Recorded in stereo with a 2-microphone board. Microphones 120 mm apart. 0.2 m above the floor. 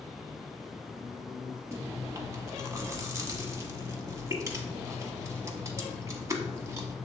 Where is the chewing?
25° right (ahead or behind), 0.7 m.